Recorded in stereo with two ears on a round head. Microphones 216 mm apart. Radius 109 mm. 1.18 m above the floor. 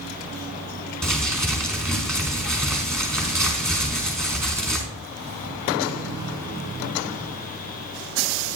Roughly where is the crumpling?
Centre.